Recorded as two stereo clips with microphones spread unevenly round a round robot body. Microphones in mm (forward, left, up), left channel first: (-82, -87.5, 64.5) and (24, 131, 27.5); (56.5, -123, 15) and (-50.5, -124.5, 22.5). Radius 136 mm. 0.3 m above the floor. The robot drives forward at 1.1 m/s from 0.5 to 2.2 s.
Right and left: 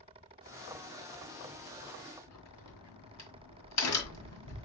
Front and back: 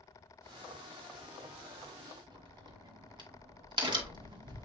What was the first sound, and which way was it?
A crack, 135° right.